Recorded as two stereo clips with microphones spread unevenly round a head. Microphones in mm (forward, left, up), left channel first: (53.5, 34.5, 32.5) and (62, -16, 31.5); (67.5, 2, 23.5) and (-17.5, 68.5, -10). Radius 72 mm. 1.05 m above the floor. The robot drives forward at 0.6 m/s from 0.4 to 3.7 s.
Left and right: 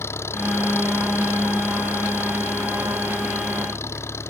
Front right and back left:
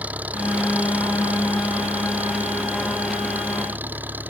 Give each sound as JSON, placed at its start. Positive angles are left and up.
{"t": 0.0, "sound": "an engine running", "azimuth_deg": 65}